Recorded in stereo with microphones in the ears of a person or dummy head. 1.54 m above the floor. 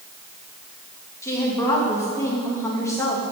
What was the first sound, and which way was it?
A woman speaking, 15° left (ahead or behind).